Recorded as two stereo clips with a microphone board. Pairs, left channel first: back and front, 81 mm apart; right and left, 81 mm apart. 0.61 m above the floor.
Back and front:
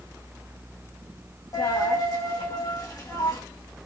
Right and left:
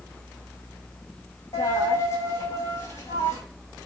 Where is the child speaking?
I don't hear a child speaking.